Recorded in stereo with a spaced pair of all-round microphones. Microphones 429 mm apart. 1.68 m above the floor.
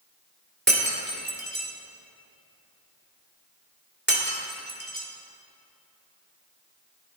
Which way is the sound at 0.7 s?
25° right (ahead or behind).